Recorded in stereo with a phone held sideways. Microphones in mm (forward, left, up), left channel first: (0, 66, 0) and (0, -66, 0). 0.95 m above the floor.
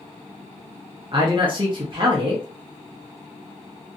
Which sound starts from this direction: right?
A man speaking, at 1.1 s.